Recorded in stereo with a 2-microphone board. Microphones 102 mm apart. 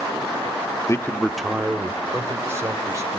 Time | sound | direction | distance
0.9 | a man speaking | 30° left (ahead or behind) | 0.9 m